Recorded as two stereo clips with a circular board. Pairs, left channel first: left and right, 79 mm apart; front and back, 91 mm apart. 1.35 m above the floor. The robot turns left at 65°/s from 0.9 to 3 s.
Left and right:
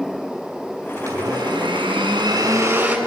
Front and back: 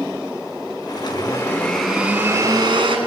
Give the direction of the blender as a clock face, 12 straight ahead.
1 o'clock.